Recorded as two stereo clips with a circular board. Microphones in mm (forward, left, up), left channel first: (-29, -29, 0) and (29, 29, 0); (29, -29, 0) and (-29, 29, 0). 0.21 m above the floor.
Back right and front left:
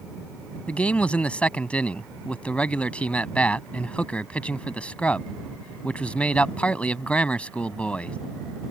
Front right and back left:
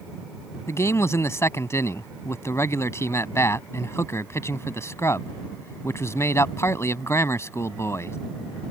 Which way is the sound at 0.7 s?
70° right.